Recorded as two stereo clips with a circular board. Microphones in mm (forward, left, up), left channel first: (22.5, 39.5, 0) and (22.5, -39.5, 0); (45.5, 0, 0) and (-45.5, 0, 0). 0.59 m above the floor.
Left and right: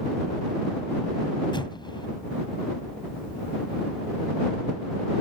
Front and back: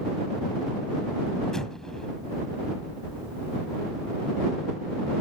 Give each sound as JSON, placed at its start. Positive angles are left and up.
{"t": 1.5, "sound": "an explosion", "azimuth_deg": 80}